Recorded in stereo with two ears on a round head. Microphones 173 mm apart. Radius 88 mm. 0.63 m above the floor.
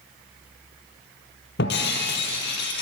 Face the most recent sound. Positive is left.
turn(degrees=65)  # may be behind; listen again after turning